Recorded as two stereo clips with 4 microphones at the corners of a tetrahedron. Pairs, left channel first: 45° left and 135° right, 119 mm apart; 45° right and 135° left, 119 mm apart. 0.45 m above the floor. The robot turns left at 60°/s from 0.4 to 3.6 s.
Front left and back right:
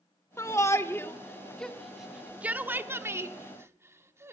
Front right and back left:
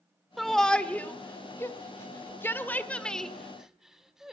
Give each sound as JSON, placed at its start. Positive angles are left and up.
{"t": 0.4, "sound": "a shout", "azimuth_deg": 45, "distance_m": 1.0}